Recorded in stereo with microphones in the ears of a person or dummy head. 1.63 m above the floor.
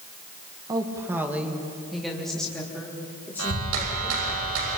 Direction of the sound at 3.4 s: 85° right.